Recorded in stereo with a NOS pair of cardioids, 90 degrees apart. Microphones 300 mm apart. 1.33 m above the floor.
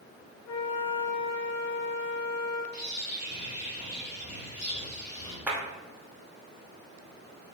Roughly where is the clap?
Ahead.